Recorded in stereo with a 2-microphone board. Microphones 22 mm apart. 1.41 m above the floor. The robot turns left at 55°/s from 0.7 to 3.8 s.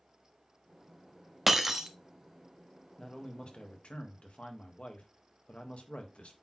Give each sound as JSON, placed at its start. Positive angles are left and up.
{"t": 1.5, "sound": "breaking glass", "side_deg": -5, "distance_m": 0.9}
{"t": 3.0, "sound": "a man speaking", "azimuth_deg": 160, "distance_m": 1.6}